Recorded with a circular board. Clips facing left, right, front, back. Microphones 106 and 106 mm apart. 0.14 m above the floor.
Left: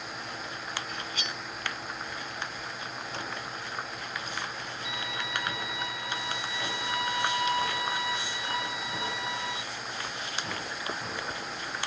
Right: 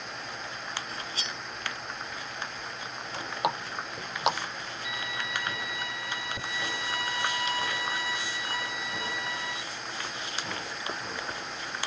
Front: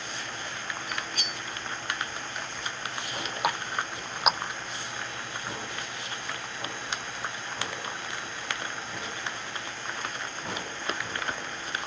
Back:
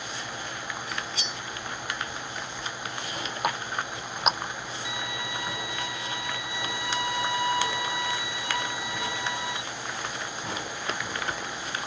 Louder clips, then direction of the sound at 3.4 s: Right 7 dB, even; 90° right.